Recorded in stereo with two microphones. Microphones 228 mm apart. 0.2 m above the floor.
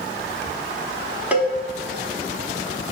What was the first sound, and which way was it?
A cowbell, 5° right (ahead or behind).